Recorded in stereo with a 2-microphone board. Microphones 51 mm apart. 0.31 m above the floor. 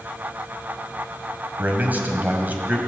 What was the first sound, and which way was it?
A man speaking, 35° right (ahead or behind).